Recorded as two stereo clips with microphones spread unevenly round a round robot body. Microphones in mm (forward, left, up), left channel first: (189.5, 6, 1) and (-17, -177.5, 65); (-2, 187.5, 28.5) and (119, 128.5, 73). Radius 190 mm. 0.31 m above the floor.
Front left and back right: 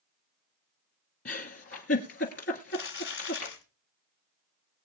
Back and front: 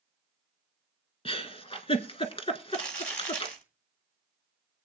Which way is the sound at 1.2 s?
100° left.